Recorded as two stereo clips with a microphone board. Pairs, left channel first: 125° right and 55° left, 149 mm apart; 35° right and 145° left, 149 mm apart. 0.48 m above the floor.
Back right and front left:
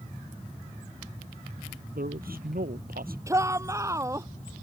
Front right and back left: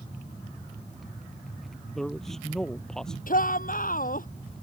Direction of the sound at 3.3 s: 15° right.